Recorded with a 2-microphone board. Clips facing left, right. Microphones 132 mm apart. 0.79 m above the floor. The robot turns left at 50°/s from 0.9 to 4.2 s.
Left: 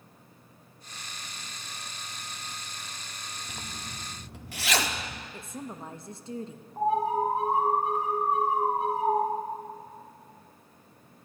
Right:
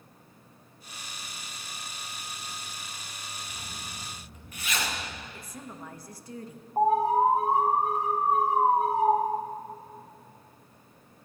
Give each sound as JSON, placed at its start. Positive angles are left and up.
{"t": 3.5, "sound": "a zipper", "side_deg": 60, "distance_m": 1.1}
{"t": 5.3, "sound": "a woman speaking", "side_deg": 25, "distance_m": 0.8}
{"t": 6.8, "sound": "an alarm", "side_deg": -40, "distance_m": 3.0}